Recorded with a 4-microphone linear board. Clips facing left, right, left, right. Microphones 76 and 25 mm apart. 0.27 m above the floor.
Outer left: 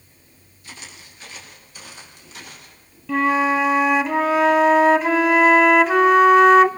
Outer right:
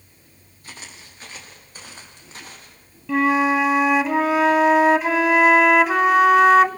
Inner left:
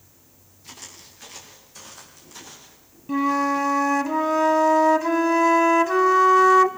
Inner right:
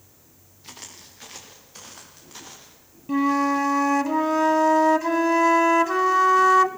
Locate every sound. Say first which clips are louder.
0.6 s footsteps: even, even; 40° right (ahead or behind), 7.5 m; by 2.8 s 35° right (ahead or behind), 9.5 m
3.1 s a flute: even, even; 5° right (ahead or behind), 1.0 m